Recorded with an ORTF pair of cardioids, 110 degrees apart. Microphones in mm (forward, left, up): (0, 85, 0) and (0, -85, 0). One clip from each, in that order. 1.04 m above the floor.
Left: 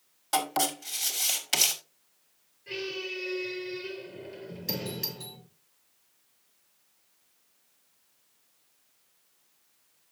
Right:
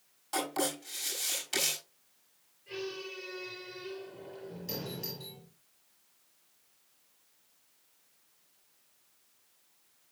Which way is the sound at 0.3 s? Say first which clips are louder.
Left 5 dB; 60° left.